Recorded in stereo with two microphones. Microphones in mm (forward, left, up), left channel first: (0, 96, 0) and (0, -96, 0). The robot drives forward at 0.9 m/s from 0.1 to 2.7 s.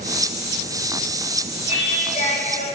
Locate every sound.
1.7 s singing: 30° left (ahead or behind), 3 m; by 2.6 s 40° left (ahead or behind), 2 m